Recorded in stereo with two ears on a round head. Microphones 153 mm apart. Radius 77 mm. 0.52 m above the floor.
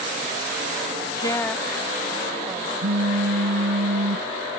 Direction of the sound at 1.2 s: 25° left (ahead or behind).